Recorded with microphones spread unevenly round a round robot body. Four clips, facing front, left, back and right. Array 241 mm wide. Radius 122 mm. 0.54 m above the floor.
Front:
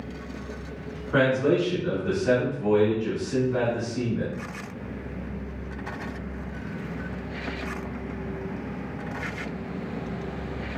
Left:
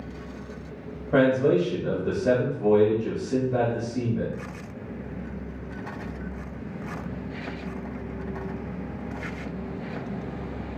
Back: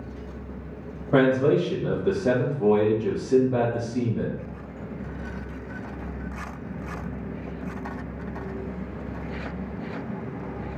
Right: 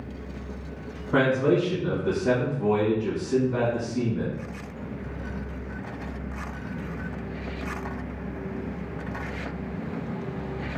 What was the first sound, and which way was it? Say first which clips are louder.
A man speaking: left 2 dB, back 2 dB; 150° left.